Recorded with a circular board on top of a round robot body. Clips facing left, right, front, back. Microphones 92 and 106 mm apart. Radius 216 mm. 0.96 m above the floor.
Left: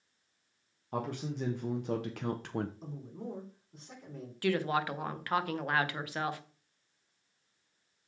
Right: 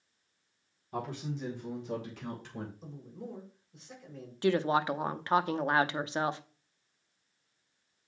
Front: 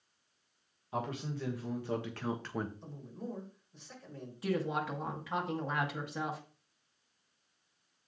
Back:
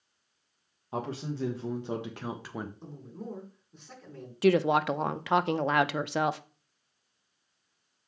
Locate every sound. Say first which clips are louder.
0.9 s a man speaking: left 1 dB, back 3 dB; 125° left, 1.8 m; by 2.7 s 90° left, 1.0 m
2.8 s a man speaking: left 2 dB, back 2 dB; 135° left, 4.5 m
4.4 s a woman speaking: right 3 dB, back 11 dB; 155° right, 0.7 m